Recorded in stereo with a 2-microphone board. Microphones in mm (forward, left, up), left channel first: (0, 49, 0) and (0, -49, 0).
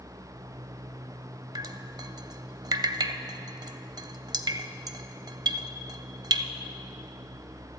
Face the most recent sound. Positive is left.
turn(degrees=-45)  # may be behind; listen again after turning